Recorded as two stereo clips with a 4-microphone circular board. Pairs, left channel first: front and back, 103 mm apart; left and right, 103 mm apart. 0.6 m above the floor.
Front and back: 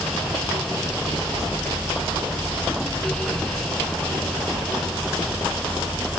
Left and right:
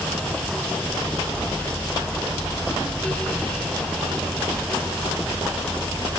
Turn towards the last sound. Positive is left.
No sound to turn to.